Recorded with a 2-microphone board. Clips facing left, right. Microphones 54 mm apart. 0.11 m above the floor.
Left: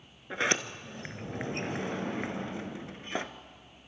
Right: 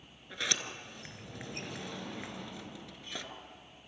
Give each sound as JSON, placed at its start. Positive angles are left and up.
{"t": 0.3, "sound": "a sliding door", "side_deg": 35, "distance_m": 1.0}